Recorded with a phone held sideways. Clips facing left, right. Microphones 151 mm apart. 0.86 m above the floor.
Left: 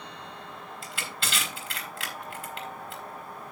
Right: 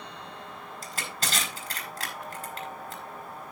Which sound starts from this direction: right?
Crushing, at 0.8 s.